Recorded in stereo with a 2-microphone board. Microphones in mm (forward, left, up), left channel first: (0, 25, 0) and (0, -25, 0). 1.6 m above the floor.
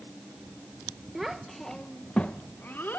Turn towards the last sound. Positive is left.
turn(degrees=45)  # may be behind; listen again after turning